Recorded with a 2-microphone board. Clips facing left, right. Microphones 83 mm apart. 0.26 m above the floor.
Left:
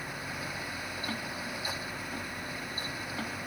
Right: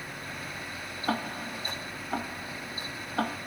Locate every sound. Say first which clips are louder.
1.1 s ticking: right 10 dB; 60° right (ahead or behind)